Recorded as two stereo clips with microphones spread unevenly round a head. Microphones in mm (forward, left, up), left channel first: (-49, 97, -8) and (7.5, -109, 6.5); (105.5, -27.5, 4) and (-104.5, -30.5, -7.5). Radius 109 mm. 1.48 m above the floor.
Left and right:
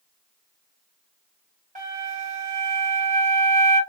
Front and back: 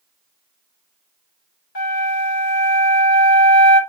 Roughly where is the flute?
Ahead.